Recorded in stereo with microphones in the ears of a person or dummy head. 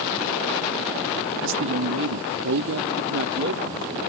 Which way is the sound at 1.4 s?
65° right (ahead or behind).